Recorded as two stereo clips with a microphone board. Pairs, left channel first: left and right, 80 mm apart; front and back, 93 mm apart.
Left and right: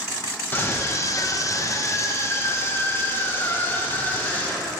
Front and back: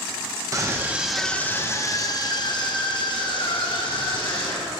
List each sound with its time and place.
0.5 s a scream: 140° left, 0.6 m; by 4.7 s 25° left, 2.5 m